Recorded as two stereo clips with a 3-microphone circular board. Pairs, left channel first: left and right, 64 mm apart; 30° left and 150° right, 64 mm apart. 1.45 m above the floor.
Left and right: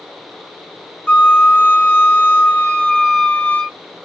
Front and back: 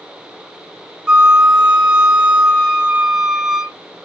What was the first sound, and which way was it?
A flute, 140° left.